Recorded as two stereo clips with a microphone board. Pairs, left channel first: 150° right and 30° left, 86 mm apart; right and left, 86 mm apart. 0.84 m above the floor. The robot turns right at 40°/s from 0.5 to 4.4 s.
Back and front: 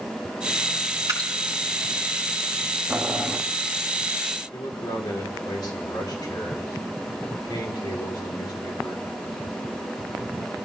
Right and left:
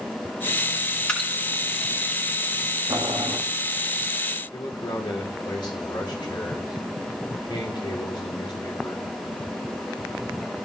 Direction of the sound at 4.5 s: 115° right.